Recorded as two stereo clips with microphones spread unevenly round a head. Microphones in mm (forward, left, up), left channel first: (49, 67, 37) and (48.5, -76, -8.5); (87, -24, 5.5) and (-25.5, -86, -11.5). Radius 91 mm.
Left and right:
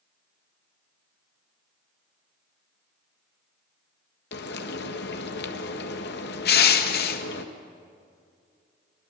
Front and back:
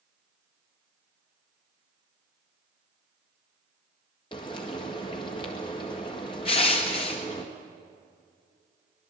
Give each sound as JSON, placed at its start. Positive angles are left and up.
{"t": 4.3, "sound": "frying", "azimuth_deg": 95, "distance_m": 1.6}
{"t": 6.5, "sound": "crushing", "azimuth_deg": 90, "distance_m": 1.5}